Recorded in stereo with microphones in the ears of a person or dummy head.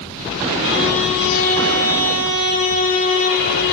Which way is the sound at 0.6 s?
70° left (ahead or behind).